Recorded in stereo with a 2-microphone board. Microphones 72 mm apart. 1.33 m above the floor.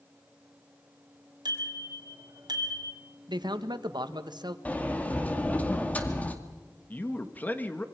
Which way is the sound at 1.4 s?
70° right (ahead or behind).